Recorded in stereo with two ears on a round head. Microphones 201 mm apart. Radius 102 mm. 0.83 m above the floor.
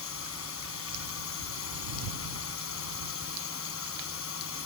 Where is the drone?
65° left (ahead or behind).